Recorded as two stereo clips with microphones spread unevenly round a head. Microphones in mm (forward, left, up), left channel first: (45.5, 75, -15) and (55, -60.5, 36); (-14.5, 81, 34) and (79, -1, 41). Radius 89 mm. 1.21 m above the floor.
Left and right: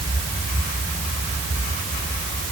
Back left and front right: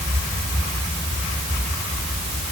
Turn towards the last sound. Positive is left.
No sound to turn to.